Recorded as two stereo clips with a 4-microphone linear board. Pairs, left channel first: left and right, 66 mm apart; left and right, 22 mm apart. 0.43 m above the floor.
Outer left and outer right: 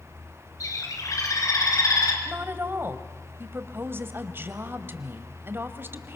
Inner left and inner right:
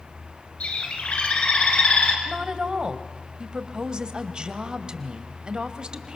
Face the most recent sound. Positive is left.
turn(degrees=-35)  # may be behind; listen again after turning